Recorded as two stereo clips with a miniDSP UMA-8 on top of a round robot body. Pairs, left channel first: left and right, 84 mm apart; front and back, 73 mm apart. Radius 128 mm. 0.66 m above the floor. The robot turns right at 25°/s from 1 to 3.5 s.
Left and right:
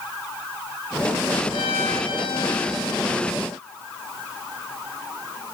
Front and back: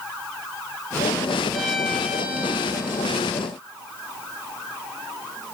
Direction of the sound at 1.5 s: 85° left.